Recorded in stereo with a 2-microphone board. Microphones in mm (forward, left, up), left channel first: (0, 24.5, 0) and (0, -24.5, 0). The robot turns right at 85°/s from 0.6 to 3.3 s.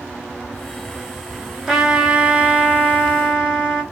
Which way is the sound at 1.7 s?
170° right.